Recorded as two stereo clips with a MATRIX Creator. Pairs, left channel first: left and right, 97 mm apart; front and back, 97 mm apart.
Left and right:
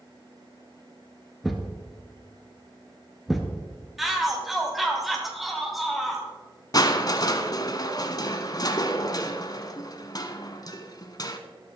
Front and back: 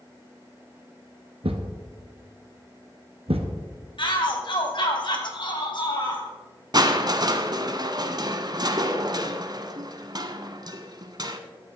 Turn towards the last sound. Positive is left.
turn(degrees=135)